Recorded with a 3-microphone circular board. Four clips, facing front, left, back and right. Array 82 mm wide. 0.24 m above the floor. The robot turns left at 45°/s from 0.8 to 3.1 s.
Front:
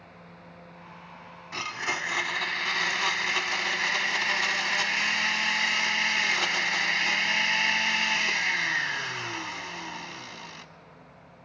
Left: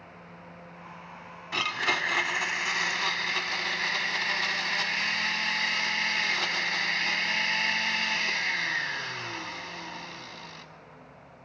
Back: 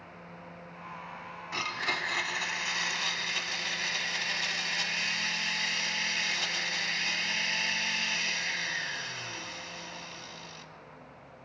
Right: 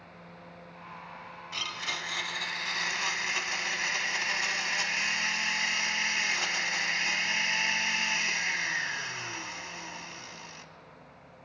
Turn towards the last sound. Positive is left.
turn(degrees=20)